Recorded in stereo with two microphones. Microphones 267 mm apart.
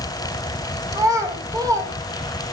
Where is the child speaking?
15° right (ahead or behind), 3 m.